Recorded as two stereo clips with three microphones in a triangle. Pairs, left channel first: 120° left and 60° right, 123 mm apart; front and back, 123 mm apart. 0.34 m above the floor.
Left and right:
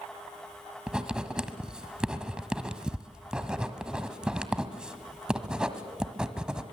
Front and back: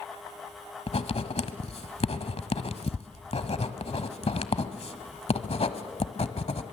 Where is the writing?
20° left, 1.3 m.